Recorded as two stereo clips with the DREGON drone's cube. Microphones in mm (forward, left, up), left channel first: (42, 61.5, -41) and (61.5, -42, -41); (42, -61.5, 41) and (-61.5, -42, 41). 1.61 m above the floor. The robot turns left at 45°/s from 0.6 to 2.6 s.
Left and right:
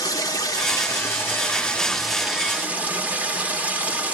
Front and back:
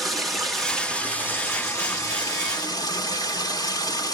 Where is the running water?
80° left, 1.2 m; by 4.2 s 10° right, 1.2 m.